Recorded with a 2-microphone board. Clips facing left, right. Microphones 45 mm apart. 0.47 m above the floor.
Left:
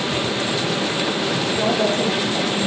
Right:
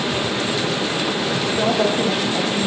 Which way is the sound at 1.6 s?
15° right (ahead or behind).